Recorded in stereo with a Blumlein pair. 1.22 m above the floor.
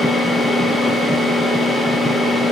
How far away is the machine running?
About 1.0 m.